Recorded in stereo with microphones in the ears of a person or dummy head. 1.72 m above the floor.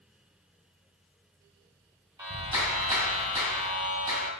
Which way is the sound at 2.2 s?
15° right (ahead or behind).